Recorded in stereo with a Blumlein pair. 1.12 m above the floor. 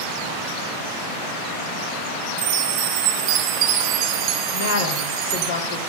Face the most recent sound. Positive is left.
turn(degrees=60)